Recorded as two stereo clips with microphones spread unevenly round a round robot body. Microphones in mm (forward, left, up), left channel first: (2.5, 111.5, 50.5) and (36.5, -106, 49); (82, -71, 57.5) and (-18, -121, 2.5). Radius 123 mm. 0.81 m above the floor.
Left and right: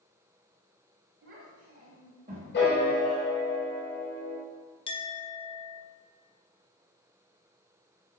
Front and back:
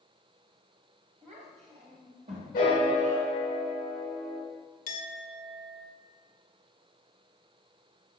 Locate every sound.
1.2 s a child speaking: 135° right, 3.5 m; by 3.3 s 160° right, 3.5 m
2.5 s a piano: 55° left, 4 m
4.9 s a clink: 30° left, 1.1 m